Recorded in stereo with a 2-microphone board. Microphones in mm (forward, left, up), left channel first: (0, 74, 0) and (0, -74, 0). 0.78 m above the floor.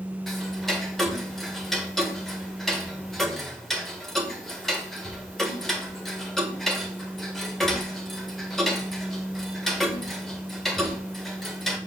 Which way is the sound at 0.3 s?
Centre (ahead or behind).